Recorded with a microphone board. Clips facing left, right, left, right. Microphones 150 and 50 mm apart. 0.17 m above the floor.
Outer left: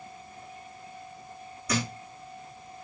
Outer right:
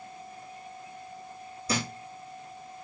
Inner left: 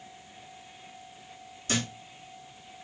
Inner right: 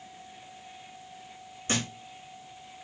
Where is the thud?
30° right (ahead or behind), 3 m.